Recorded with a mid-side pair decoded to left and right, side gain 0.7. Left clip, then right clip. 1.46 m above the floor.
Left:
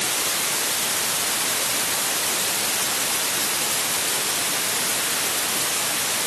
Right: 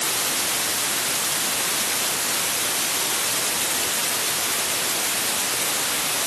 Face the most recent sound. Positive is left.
No sound to turn to.